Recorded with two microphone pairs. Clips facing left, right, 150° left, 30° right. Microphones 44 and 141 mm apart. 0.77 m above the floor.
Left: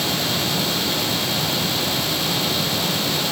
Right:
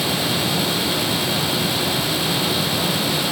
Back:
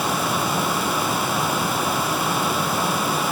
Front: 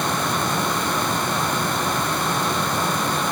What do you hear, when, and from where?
Only background noise.